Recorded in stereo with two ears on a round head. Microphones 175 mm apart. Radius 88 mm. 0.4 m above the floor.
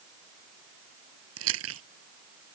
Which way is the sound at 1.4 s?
80° right.